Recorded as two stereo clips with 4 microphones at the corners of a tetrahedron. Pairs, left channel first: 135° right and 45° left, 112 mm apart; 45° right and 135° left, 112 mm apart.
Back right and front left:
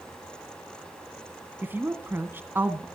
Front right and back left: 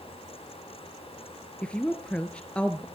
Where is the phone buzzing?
No phone buzzing in this recording.